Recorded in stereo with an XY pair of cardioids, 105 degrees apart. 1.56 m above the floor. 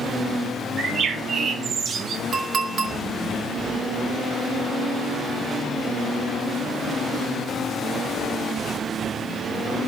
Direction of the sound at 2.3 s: 55° right.